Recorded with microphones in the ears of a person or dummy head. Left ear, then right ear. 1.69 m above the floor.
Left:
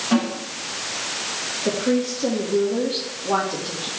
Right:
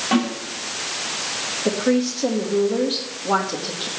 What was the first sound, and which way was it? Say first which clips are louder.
A snare drum: right 1 dB; 15° right (ahead or behind).